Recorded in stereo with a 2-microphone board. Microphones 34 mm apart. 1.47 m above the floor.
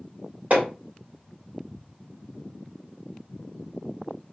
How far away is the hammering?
About 1.7 m.